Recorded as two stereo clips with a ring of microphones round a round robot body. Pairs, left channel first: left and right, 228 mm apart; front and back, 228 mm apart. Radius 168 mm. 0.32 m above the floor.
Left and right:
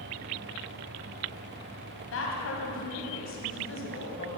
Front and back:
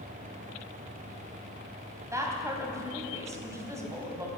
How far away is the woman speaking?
About 3 m.